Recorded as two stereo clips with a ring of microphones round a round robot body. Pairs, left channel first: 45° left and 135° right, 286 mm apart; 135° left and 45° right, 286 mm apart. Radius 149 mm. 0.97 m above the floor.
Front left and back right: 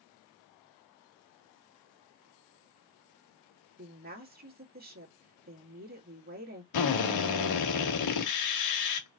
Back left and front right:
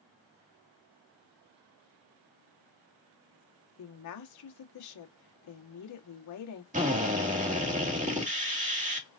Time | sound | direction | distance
3.8 | a woman speaking | 165° left | 1.7 m
6.7 | a drill | 20° left | 1.8 m